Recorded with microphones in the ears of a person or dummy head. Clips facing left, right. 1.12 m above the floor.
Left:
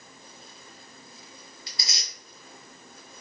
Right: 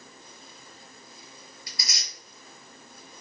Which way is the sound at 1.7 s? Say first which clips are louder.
Left 2 dB; 25° left (ahead or behind).